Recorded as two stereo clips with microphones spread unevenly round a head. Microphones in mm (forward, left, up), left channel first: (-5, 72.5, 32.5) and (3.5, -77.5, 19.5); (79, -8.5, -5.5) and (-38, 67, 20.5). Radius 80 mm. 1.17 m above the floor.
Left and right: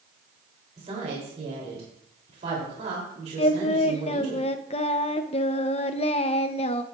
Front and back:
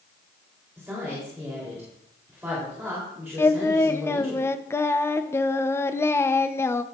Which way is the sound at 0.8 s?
130° right.